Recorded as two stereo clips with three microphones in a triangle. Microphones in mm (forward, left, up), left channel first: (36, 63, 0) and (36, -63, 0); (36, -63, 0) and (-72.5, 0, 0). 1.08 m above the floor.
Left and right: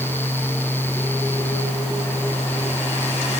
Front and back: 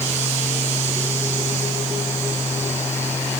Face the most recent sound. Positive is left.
No sound to turn to.